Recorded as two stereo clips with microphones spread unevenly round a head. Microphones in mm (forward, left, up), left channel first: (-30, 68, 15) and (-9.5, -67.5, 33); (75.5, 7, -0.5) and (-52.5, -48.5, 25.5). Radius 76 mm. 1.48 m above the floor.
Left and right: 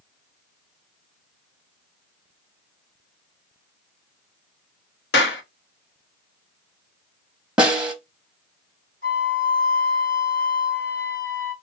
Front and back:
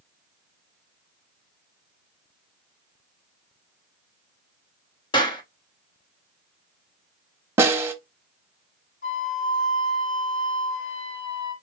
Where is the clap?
85° left, 1.2 m.